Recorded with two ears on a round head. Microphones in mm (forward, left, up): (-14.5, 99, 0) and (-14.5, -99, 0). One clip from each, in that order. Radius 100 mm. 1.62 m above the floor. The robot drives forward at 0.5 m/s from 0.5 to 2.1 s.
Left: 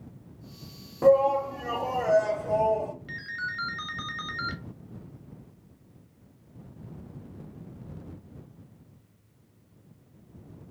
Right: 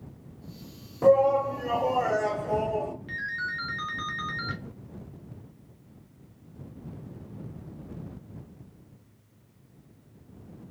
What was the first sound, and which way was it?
A shout, 10° left (ahead or behind).